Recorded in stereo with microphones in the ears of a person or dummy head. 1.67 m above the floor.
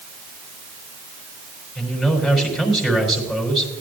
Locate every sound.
1.8 s a man speaking: centre (ahead or behind), 3.5 m